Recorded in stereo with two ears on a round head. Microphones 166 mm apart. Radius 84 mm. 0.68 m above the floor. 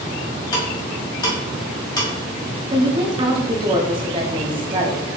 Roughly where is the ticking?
Left.